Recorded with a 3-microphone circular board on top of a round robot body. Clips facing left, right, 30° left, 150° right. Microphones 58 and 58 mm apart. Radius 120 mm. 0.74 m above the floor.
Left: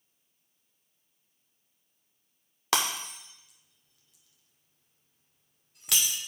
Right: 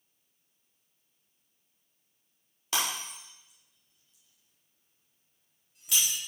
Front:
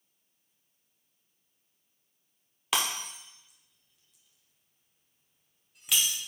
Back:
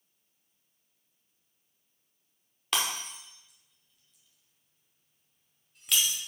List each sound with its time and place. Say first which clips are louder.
2.7 s breaking glass: left 4 dB, front 1 dB; 115° left, 1.0 m